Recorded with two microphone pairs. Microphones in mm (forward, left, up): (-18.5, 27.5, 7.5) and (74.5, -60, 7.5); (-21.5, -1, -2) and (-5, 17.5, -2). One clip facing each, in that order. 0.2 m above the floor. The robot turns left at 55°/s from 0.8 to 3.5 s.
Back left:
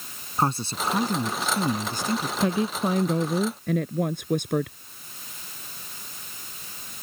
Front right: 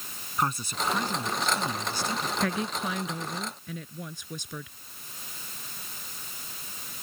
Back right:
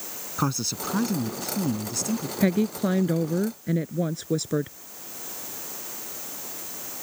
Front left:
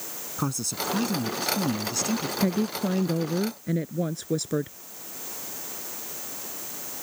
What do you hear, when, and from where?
0.4 s a man speaking: 175° right; by 2.3 s 105° left
2.4 s a woman speaking: 155° right; by 4.8 s 145° left